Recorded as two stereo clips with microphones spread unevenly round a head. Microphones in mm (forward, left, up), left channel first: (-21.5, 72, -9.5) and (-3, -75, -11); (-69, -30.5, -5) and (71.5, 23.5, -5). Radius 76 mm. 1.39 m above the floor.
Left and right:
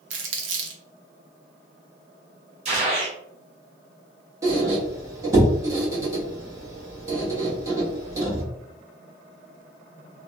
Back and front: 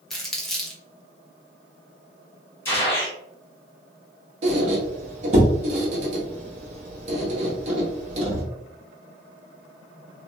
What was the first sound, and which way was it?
Crumpling, 70° right.